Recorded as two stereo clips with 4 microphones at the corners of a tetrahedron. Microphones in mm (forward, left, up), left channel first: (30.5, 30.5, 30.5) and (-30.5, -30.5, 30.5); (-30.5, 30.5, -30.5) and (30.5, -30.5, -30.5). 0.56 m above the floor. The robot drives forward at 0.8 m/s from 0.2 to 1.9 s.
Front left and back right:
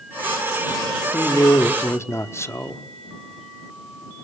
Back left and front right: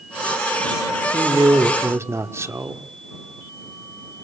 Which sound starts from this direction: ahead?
A man speaking, at 1.1 s.